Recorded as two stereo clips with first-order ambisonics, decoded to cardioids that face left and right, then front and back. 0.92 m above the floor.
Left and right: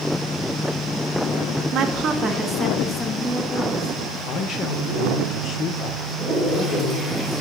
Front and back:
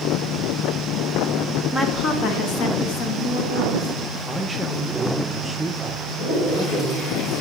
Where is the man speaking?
100° left, 0.6 m.